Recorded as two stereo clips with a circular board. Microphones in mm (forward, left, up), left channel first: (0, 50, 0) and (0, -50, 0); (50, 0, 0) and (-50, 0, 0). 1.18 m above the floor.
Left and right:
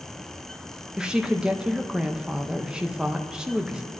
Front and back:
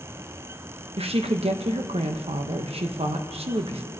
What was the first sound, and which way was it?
A woman speaking, 170° right.